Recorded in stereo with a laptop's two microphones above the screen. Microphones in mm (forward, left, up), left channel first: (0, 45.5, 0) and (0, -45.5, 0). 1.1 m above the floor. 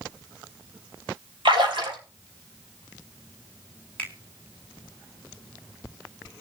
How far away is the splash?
About 3 m.